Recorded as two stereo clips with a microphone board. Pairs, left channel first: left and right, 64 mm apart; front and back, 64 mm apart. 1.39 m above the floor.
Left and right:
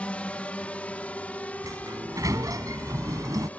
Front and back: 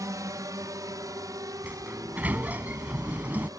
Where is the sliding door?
115° right.